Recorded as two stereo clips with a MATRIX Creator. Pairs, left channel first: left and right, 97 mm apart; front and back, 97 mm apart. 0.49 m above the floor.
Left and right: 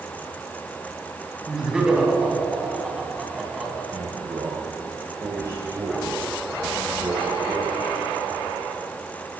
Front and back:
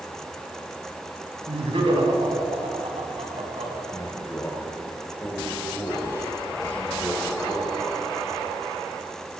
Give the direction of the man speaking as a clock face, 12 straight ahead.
2 o'clock.